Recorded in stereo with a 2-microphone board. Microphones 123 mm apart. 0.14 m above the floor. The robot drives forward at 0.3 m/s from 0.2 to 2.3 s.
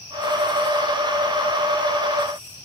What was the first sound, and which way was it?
Only background noise.